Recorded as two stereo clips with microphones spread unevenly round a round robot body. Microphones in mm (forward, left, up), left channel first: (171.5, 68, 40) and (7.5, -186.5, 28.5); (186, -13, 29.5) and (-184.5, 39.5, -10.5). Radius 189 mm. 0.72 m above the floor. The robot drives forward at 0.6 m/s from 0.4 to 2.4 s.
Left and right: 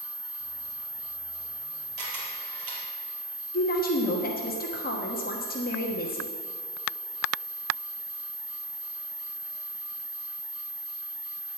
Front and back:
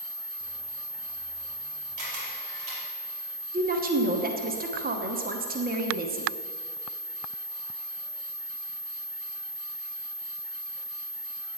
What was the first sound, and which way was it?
A camera shutter, 140° right.